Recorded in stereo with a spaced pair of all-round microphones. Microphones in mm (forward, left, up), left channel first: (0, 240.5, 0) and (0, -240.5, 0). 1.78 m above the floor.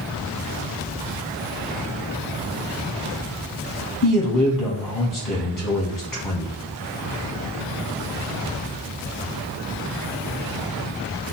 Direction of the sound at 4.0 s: 45° left (ahead or behind).